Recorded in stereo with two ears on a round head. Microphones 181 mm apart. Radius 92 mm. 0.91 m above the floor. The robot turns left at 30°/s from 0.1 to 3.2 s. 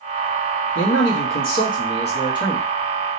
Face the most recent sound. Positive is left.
turn(degrees=0)